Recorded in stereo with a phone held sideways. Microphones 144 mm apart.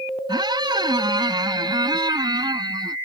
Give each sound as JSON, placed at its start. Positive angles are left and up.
{"t": 0.3, "sound": "a squeak", "side_deg": -30}